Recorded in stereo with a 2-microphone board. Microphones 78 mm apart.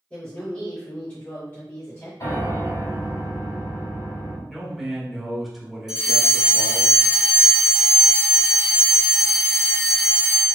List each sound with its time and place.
0.1 s a woman speaking: 15° left (ahead or behind), 1.7 m; by 2.1 s 35° left (ahead or behind), 1.3 m
2.2 s a piano: 55° left (ahead or behind), 2.0 m
4.5 s a man speaking: centre (ahead or behind), 1.0 m
5.9 s a fire alarm: 10° right (ahead or behind), 1.9 m